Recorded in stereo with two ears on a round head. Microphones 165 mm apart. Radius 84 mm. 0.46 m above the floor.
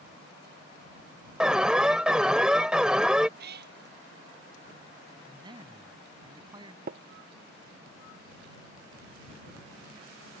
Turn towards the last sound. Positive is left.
turn(degrees=-45)  # may be behind; listen again after turning